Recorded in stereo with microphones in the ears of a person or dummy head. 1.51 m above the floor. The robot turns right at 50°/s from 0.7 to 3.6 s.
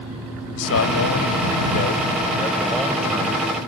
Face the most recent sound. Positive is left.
turn(degrees=-140)